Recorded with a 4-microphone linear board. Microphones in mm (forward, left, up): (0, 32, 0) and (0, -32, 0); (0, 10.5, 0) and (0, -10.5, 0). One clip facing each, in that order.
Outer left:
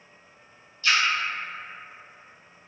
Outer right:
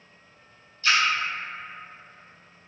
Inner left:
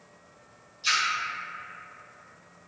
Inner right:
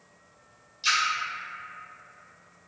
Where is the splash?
40° right (ahead or behind), 1.5 m.